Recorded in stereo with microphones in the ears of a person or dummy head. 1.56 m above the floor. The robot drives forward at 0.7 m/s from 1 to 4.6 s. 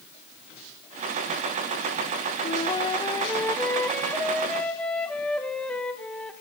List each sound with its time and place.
2.4 s a flute: 35° left (ahead or behind), 0.5 m; by 6.3 s 10° left (ahead or behind), 1.9 m